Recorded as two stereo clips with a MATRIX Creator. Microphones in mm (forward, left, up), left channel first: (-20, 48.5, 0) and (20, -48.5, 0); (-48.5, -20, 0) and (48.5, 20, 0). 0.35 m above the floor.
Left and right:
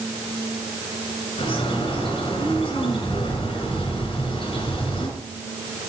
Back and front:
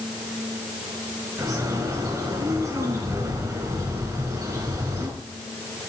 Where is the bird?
80° left, 4 m.